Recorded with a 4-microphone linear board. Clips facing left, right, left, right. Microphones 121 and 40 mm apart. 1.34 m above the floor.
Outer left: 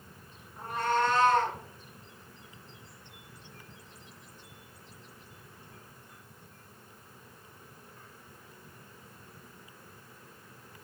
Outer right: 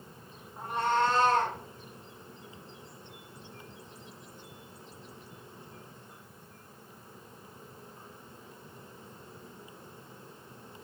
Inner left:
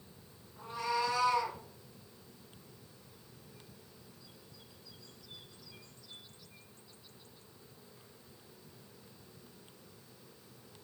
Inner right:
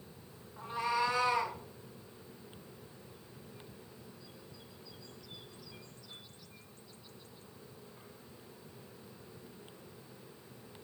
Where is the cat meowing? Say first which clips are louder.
Outer right 1 dB, inner right 1 dB; 25° right (ahead or behind), 1.8 m; by 1.6 s 40° right (ahead or behind), 1.6 m.